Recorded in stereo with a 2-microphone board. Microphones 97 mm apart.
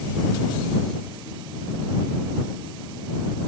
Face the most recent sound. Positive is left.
No sound to turn to.